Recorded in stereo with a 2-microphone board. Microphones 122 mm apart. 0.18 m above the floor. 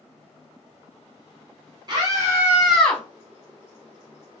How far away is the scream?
About 1.5 m.